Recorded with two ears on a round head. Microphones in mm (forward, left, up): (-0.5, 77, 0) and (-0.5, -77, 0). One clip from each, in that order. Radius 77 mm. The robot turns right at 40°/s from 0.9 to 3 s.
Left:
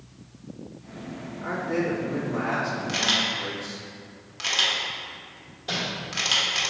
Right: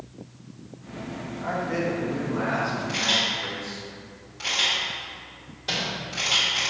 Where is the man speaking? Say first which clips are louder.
Even; 30° right, 1.5 m; by 3.8 s 35° left, 1.5 m.